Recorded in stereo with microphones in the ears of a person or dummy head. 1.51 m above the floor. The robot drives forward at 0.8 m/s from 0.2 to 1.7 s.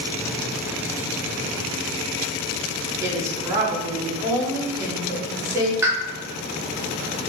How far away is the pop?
About 0.7 m.